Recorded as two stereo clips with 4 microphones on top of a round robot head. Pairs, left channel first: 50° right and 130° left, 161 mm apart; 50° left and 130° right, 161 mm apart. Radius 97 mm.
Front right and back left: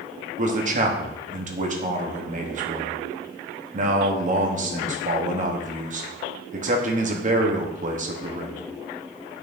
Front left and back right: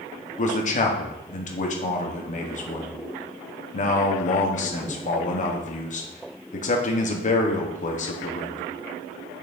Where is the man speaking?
90° left, 1.3 m.